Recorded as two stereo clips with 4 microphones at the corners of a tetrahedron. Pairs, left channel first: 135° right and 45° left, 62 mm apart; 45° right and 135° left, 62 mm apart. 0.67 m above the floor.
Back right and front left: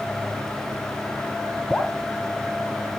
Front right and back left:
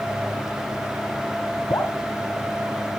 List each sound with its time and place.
1.7 s dripping: 55° right, 2.5 m